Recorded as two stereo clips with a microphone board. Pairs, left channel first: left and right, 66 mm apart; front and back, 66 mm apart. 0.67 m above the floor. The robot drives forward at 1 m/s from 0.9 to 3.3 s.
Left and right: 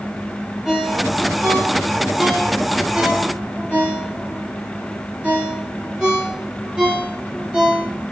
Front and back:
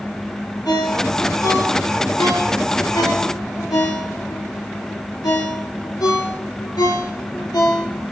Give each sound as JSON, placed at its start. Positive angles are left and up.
{"t": 0.7, "sound": "a ringtone", "azimuth_deg": -10, "distance_m": 6.5}